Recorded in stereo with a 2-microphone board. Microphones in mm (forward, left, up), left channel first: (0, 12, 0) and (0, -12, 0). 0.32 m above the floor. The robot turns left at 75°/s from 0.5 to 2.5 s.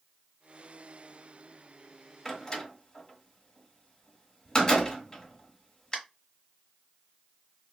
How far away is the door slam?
About 1.1 m.